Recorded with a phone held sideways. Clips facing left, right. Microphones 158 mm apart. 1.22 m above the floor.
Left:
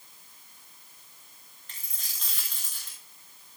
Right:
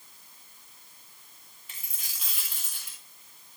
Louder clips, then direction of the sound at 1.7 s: Even; 10° right (ahead or behind).